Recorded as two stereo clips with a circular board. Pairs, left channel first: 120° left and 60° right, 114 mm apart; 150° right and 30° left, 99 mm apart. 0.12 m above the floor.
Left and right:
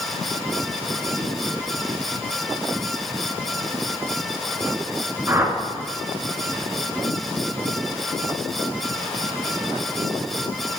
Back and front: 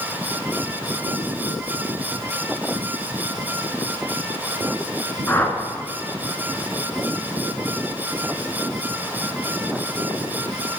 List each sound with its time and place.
5.3 s a whoosh: 100° right, 1.6 m